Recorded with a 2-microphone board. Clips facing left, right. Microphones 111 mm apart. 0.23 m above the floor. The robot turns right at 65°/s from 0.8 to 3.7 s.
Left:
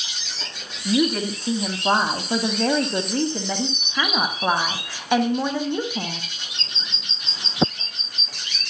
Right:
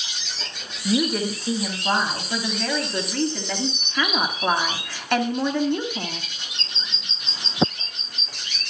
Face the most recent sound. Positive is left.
turn(degrees=165)